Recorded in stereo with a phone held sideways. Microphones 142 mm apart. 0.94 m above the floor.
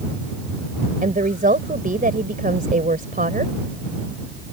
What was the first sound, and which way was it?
A woman speaking, 80° right.